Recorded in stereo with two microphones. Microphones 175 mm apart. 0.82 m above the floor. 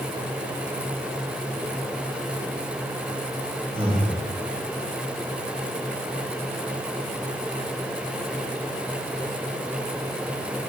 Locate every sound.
3.8 s breathing: 35° right (ahead or behind), 1.7 m